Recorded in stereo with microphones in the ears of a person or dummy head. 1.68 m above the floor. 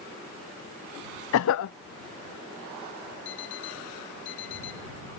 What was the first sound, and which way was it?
A cough, 70° left (ahead or behind).